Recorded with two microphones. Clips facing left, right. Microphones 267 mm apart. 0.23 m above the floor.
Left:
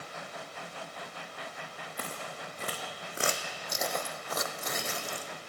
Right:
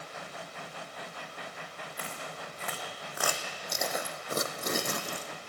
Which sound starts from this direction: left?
Footsteps, at 2.0 s.